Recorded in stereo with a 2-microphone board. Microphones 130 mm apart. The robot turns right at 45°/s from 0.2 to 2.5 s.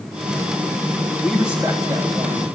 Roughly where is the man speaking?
Behind.